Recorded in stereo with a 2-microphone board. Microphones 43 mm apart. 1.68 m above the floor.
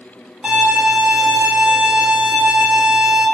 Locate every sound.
0.4 s a violin: 15° right (ahead or behind), 1.7 m